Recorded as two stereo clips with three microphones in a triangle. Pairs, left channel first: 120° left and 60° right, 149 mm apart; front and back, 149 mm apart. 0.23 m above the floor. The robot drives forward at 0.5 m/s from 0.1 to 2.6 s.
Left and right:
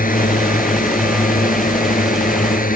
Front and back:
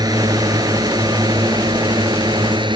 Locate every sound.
0.0 s a drone: 120° left; by 2.8 s 125° left